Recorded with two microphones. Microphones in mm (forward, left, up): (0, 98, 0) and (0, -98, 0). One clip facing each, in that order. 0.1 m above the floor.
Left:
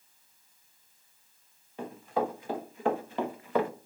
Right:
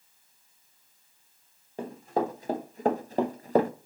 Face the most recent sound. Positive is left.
turn(degrees=-40)  # may be behind; listen again after turning